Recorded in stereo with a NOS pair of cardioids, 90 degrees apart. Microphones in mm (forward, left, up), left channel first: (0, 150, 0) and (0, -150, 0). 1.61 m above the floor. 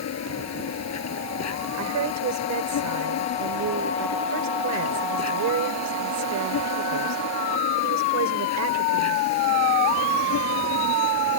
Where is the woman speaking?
65° right.